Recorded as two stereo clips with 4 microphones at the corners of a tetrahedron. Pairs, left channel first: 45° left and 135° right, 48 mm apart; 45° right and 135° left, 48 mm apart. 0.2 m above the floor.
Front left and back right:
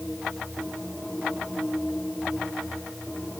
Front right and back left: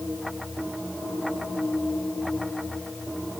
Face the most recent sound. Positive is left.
No sound to turn to.